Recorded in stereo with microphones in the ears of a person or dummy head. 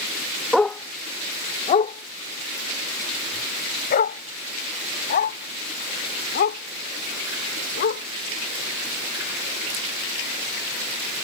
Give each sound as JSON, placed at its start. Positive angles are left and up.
{"t": 0.5, "sound": "a dog barking", "side_deg": 0}